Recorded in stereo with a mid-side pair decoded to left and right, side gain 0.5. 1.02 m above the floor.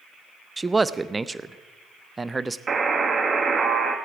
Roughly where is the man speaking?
Ahead.